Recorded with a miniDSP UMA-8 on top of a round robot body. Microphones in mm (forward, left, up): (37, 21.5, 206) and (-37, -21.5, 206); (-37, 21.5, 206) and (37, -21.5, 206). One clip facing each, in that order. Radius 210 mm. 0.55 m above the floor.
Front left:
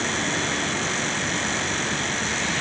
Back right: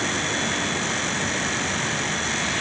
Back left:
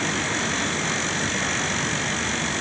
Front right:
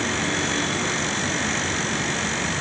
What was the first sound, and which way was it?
Only background noise.